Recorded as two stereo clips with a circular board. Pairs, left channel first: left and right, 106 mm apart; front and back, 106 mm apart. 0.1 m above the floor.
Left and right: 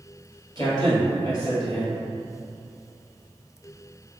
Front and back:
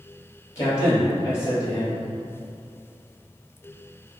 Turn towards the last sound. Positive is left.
turn(degrees=50)